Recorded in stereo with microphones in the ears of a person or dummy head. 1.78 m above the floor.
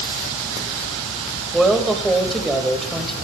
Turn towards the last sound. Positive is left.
turn(degrees=5)  # may be behind; listen again after turning